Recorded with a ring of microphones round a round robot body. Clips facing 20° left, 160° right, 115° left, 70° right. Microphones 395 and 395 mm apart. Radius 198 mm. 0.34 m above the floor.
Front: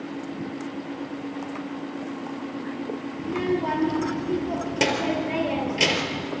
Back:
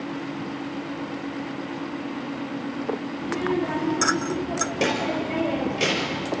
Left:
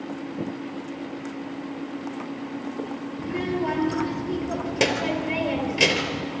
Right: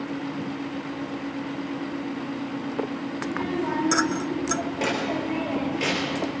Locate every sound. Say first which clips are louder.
3.2 s a child speaking: front 2 dB, left 2 dB; 90° left, 4.5 m